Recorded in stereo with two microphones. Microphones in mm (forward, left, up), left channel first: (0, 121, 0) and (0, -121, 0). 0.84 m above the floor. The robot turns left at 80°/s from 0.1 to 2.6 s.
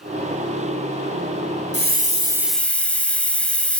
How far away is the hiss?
About 0.9 m.